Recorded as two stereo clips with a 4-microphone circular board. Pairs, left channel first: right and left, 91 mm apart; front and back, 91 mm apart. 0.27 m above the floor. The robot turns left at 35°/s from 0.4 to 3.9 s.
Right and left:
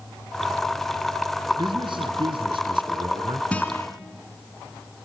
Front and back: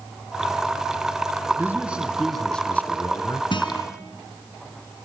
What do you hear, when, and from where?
1.6 s a man speaking: 115° left, 2.5 m; by 3.4 s 50° left, 2.5 m
3.5 s a guitar: 15° right, 2.5 m; by 3.9 s 30° right, 2.5 m